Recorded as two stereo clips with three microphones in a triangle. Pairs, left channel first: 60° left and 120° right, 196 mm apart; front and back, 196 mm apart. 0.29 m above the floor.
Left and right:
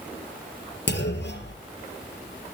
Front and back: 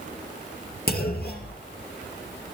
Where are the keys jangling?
No keys jangling in this recording.